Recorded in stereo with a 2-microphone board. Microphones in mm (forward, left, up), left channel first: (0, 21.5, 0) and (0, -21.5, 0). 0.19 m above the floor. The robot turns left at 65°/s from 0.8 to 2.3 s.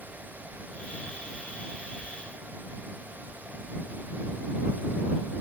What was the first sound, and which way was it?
Only background noise.